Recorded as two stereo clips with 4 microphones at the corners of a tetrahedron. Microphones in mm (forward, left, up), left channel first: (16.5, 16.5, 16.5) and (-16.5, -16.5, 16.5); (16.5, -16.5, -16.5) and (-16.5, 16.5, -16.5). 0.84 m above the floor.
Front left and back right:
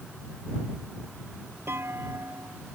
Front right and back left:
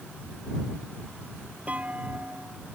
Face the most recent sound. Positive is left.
turn(degrees=-170)